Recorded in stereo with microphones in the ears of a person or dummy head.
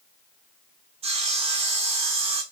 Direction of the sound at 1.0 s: 30° right (ahead or behind).